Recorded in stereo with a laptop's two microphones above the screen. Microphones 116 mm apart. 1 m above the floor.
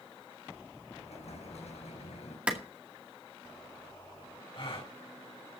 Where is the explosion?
75° left (ahead or behind), 5 m.